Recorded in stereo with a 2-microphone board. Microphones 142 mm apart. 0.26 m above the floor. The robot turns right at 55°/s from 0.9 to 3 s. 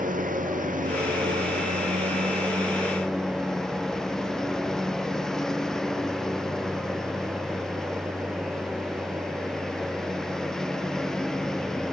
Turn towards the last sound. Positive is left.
turn(degrees=5)